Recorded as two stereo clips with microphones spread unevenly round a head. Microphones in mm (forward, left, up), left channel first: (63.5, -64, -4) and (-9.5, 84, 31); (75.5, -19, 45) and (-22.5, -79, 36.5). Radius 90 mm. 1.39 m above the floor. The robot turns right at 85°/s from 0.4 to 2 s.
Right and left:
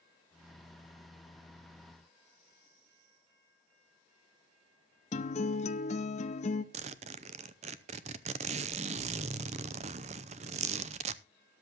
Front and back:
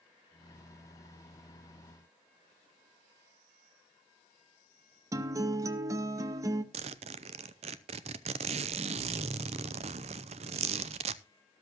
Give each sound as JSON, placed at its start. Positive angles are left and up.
{"t": 5.1, "sound": "a guitar", "azimuth_deg": -105, "distance_m": 0.7}
{"t": 6.7, "sound": "a zipper", "azimuth_deg": 175, "distance_m": 0.6}